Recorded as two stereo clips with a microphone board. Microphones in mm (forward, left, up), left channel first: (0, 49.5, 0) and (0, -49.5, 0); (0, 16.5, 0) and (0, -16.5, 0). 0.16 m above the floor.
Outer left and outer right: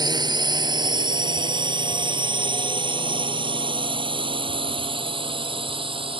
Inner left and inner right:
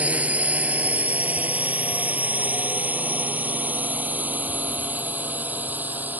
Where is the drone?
50° right (ahead or behind); by 6.2 s 70° right (ahead or behind).